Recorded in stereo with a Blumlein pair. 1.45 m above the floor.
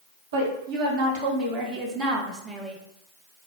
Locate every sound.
0.3 s a woman speaking: 60° right, 1.7 m; by 2.8 s straight ahead, 1.0 m